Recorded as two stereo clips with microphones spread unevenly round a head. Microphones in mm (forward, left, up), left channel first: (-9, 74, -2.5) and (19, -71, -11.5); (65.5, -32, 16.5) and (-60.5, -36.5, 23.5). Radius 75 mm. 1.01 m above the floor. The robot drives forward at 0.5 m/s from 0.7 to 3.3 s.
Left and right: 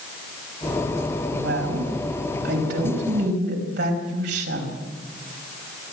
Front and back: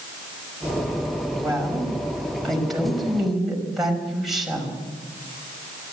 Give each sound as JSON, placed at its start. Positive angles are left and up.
{"t": 1.3, "sound": "a woman speaking", "azimuth_deg": -80, "distance_m": 5.5}